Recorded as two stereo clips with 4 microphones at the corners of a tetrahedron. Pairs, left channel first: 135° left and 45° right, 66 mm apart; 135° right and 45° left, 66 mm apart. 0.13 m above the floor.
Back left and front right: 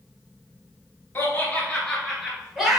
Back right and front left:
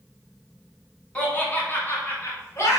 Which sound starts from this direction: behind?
Laughter, at 1.1 s.